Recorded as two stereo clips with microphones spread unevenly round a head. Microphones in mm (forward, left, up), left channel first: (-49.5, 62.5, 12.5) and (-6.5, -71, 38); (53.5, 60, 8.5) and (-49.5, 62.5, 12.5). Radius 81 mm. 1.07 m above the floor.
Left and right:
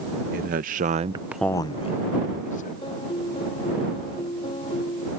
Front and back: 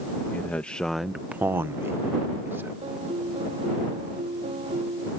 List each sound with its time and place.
0.3 s a man speaking: 80° right; by 2.7 s 110° left
2.8 s a piano: 160° left